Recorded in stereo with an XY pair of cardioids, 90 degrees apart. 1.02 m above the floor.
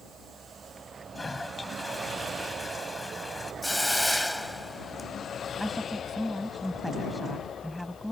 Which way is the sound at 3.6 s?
5° left.